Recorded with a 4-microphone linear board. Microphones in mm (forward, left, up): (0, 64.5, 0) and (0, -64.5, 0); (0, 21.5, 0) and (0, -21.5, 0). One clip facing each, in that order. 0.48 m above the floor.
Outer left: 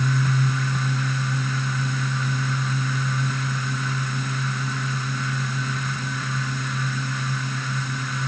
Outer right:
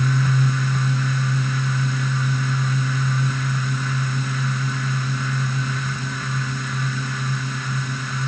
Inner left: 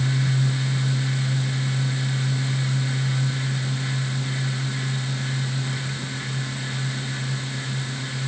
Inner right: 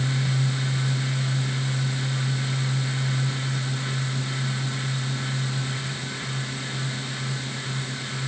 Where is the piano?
I don't hear a piano.